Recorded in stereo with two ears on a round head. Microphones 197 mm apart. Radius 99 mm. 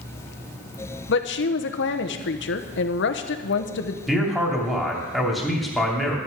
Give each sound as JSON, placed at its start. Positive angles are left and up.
{"t": 1.1, "sound": "a woman speaking", "side_deg": 55, "distance_m": 1.0}
{"t": 4.1, "sound": "a man speaking", "side_deg": 0, "distance_m": 2.5}